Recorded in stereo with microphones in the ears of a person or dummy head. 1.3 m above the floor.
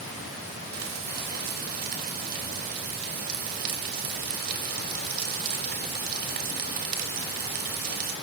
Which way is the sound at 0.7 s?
50° right (ahead or behind).